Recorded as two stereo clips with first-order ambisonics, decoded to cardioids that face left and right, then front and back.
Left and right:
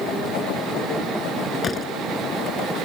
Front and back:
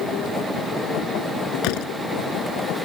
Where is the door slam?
20° left.